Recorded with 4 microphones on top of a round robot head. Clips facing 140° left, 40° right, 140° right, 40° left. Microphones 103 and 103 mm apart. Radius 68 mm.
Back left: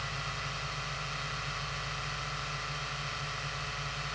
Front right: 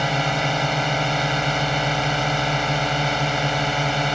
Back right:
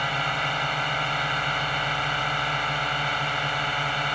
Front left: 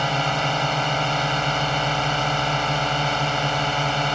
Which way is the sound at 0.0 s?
20° right.